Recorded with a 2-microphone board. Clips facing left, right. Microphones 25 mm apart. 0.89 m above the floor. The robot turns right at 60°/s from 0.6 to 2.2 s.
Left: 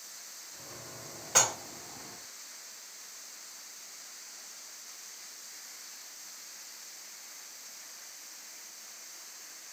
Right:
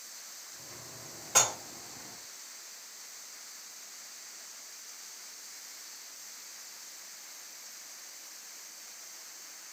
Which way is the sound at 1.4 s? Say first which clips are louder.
Even; 15° left (ahead or behind).